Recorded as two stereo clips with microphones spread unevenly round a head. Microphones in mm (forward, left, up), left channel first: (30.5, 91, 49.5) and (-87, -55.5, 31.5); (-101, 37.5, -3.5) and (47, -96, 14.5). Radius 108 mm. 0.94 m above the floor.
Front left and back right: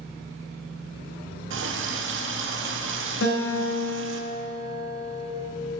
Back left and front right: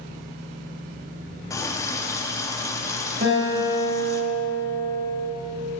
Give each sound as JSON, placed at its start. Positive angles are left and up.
{"t": 1.5, "sound": "a running tap", "azimuth_deg": -145, "distance_m": 1.0}
{"t": 3.2, "sound": "a guitar", "azimuth_deg": 15, "distance_m": 2.5}